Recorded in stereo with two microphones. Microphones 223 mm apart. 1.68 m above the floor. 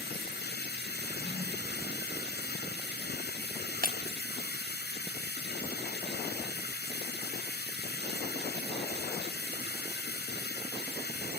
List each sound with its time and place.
0.0 s running water: 50° left (ahead or behind), 5 m
1.0 s a drawer: 20° left (ahead or behind), 4.5 m
3.8 s breaking glass: 40° right (ahead or behind), 2.5 m